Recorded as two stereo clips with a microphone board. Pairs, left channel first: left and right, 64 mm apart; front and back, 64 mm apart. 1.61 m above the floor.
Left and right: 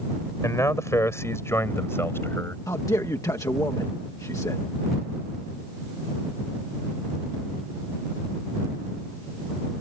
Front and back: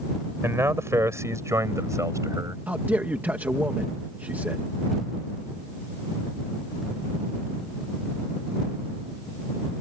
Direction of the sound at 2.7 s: 120° left.